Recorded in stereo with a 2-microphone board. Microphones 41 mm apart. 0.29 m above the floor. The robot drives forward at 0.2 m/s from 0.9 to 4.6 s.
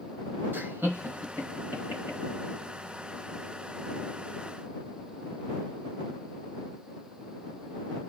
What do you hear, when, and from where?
0.5 s laughter: 65° right (ahead or behind), 2.5 m